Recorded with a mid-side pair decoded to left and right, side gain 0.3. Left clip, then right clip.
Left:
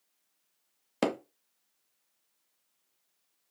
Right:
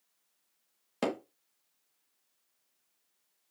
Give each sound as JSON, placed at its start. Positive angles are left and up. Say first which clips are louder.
{"t": 1.0, "sound": "hammering", "louder": "left 3 dB", "azimuth_deg": 50, "distance_m": 1.0}